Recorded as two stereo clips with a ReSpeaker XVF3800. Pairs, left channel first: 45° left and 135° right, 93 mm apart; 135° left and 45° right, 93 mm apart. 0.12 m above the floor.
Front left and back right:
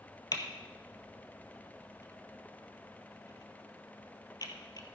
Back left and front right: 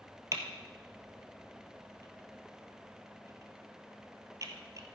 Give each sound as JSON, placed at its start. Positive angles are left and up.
{"t": 0.3, "sound": "typing on a keyboard", "azimuth_deg": 5, "distance_m": 1.5}